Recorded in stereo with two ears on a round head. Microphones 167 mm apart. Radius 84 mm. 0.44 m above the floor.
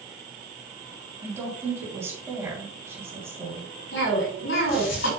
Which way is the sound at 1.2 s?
15° right (ahead or behind).